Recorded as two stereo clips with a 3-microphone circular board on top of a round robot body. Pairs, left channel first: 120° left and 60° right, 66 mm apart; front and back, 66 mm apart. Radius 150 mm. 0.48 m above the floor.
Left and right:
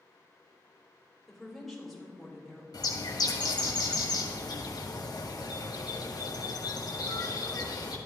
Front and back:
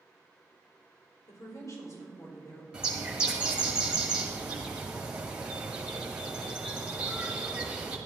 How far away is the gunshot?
No gunshot in this recording.